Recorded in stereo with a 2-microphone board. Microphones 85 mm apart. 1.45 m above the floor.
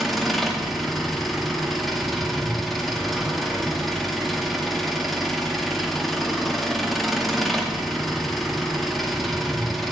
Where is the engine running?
Centre (ahead or behind), 2.5 m.